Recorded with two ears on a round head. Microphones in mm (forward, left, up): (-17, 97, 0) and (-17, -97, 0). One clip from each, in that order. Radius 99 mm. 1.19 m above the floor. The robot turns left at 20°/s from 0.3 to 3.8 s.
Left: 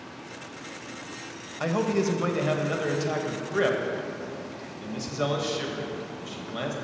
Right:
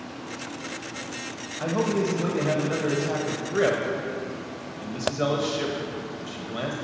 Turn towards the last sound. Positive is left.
turn(degrees=10)